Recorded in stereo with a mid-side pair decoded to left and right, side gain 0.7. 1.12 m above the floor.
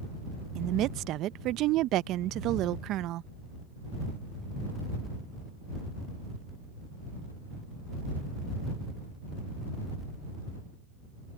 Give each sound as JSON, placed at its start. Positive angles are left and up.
{"t": 0.6, "sound": "a woman speaking", "azimuth_deg": -55}